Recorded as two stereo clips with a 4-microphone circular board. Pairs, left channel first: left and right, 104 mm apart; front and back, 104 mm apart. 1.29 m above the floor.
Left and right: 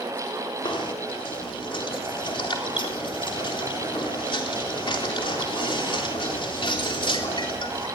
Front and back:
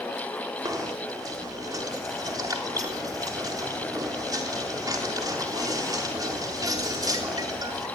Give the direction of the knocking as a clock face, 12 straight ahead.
8 o'clock.